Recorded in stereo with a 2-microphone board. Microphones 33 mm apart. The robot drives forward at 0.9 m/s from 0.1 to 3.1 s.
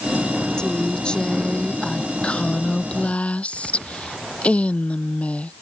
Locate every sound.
0.6 s a woman speaking: 30° left (ahead or behind); by 5.6 s 45° left (ahead or behind)